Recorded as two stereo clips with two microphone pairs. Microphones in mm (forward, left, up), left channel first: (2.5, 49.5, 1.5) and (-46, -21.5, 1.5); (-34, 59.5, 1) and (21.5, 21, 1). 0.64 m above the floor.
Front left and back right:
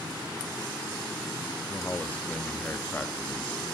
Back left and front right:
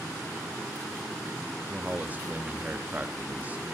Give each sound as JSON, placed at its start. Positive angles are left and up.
{"t": 1.7, "sound": "a man speaking", "azimuth_deg": 5, "distance_m": 0.8}